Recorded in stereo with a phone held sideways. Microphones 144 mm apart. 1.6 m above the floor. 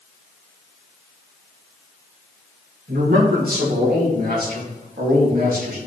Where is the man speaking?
75° right (ahead or behind), 2.5 m.